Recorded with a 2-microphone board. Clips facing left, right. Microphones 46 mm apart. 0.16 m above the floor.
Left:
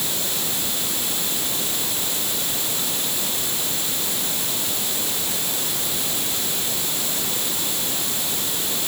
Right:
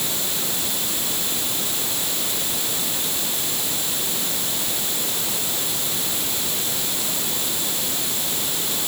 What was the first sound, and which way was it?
Only background noise.